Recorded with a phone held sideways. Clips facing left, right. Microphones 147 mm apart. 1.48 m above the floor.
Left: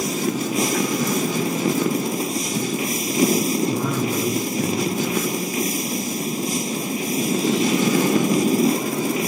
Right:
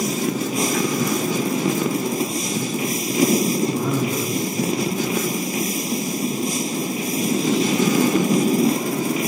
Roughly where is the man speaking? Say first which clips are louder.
Right 1 dB; left.